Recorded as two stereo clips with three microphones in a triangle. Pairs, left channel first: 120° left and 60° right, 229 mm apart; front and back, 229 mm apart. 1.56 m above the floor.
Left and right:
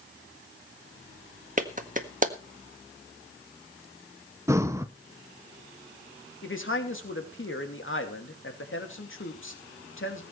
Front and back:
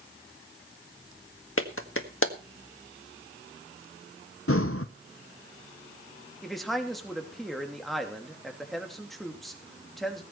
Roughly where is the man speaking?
Left.